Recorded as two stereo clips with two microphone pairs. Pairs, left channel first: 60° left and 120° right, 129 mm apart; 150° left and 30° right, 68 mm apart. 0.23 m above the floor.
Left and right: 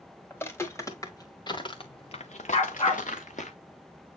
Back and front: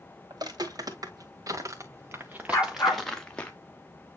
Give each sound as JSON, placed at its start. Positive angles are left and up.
{"t": 0.3, "sound": "footsteps", "azimuth_deg": -15, "distance_m": 3.0}
{"t": 2.5, "sound": "a dog barking", "azimuth_deg": 95, "distance_m": 6.0}